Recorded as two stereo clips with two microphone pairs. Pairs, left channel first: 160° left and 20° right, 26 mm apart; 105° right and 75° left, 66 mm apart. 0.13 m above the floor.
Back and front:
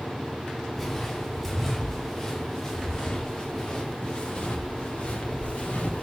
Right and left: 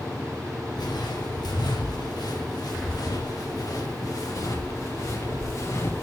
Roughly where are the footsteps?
Behind right.